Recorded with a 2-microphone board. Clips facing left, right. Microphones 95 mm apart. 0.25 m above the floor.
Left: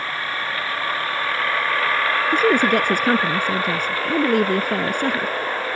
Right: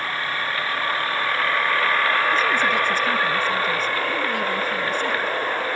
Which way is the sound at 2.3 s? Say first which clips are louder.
Left 4 dB; 65° left (ahead or behind).